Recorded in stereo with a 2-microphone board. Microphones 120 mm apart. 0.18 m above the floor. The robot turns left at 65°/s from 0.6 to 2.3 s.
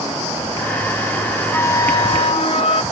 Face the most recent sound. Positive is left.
turn(degrees=110)